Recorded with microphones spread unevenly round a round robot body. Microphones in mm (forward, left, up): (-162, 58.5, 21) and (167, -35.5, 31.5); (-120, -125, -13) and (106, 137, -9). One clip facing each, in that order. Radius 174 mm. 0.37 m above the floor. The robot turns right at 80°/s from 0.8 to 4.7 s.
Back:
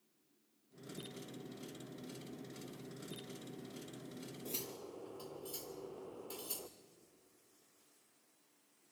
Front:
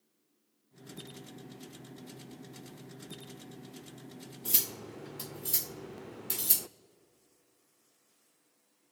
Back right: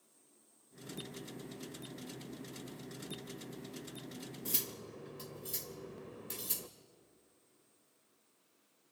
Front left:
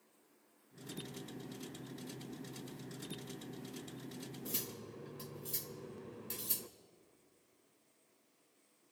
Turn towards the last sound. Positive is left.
turn(degrees=-40)